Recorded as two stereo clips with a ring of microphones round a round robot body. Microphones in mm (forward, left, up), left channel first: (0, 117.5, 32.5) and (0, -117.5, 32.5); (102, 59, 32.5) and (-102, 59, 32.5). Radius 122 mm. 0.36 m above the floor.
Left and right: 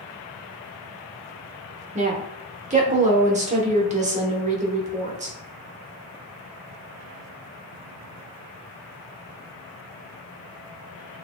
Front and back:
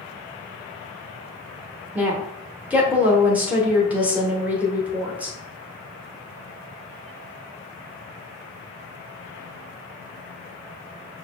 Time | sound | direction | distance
1.9 | a woman speaking | 105° right | 1.0 m